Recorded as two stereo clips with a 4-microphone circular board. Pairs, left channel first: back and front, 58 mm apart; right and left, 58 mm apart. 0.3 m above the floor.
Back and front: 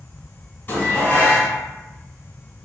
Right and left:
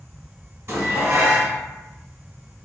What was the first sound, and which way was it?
Dishes clattering, 130° left.